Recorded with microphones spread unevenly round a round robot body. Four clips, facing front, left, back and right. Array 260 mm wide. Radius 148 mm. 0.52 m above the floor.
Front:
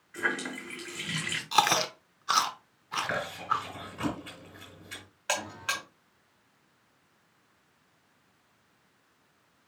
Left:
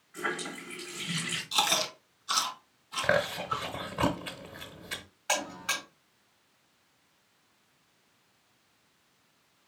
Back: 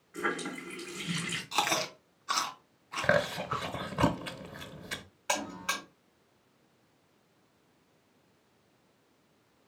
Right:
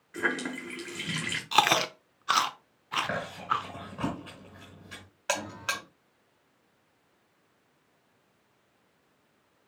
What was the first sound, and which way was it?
A running tap, 110° right.